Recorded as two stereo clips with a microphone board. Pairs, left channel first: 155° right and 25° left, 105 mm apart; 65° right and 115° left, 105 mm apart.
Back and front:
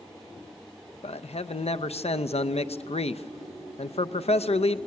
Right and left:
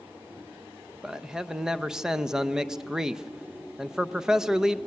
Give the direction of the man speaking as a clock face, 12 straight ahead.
5 o'clock.